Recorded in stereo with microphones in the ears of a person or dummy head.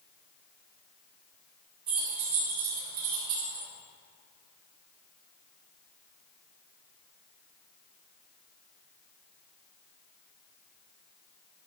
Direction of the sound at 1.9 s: 50° right (ahead or behind).